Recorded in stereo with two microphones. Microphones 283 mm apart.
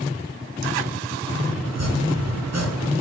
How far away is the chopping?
About 4 m.